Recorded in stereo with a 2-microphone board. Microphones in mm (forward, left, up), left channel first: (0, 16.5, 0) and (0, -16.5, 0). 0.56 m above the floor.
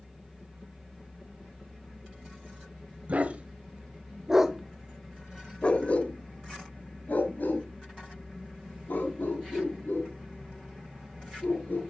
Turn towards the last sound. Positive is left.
turn(degrees=85)